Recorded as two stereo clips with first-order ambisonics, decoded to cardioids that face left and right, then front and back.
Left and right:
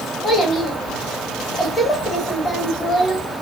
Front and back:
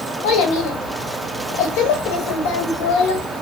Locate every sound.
0.2 s a child speaking: 10° left, 0.8 m